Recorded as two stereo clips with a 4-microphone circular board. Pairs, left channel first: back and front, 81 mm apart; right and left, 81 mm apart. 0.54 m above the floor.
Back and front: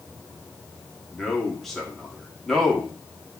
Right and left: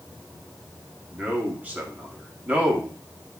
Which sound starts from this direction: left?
A man speaking, at 1.1 s.